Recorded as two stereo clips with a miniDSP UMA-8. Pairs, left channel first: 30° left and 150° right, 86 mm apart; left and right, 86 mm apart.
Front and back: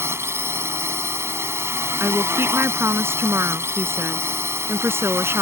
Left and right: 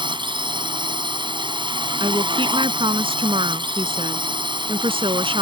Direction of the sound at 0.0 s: 95° right.